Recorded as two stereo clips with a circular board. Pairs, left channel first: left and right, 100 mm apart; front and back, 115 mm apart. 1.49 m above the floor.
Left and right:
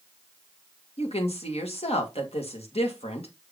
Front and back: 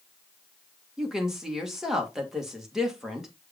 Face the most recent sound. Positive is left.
turn(degrees=95)